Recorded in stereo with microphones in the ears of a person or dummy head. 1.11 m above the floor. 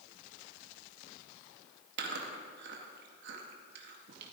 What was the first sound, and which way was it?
Chewing, 65° right (ahead or behind).